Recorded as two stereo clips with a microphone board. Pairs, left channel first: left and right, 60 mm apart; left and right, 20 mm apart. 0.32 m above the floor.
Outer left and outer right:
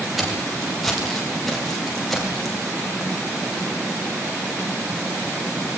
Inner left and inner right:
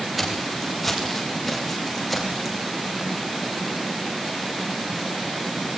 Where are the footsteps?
Centre (ahead or behind), 9.5 m.